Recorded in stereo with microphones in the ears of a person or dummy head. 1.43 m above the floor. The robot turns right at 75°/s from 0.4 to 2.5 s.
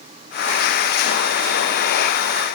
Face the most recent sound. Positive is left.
No sound to turn to.